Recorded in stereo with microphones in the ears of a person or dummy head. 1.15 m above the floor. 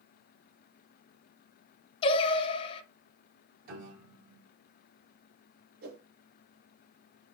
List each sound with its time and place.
2.0 s singing: 25° left (ahead or behind), 0.6 m
3.6 s a piano: 50° right (ahead or behind), 3 m
5.8 s a whoosh: 50° right (ahead or behind), 3 m